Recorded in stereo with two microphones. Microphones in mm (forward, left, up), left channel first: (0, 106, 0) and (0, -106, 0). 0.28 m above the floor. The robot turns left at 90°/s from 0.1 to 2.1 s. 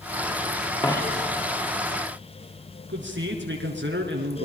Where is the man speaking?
60° right (ahead or behind), 4.5 m.